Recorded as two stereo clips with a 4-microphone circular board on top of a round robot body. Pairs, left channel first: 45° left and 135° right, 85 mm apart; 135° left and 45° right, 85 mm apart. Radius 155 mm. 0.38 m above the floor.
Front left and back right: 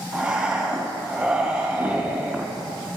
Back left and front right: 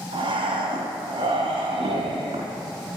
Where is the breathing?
55° right, 2 m.